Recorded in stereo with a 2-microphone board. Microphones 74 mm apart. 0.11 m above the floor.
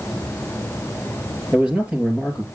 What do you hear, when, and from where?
1.5 s a man speaking: 15° right (ahead or behind), 3 m